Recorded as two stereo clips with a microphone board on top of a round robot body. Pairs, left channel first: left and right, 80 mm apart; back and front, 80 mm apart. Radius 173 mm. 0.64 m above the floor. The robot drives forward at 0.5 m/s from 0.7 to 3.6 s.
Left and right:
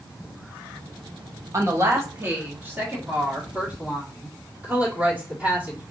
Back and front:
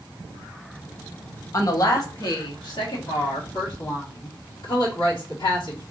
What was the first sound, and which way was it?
A woman speaking, 135° right.